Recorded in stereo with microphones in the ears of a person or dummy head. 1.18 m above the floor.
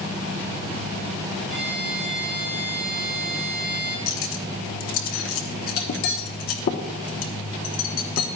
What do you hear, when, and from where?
1.5 s a violin: 5° right (ahead or behind), 5 m
4.1 s cutlery clinking: 55° left (ahead or behind), 1.1 m